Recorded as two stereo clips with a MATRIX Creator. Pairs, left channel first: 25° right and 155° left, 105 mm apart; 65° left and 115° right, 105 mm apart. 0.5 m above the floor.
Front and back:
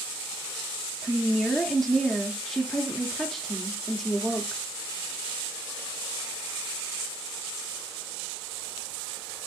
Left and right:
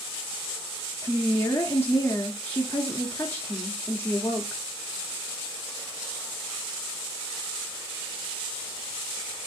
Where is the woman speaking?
65° left, 0.8 m.